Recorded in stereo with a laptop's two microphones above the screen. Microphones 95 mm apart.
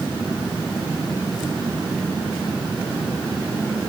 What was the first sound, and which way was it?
Only background noise.